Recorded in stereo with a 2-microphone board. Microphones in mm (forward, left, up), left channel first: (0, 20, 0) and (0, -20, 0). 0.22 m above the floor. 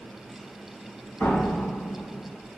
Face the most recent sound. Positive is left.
turn(degrees=70)  # may be behind; listen again after turning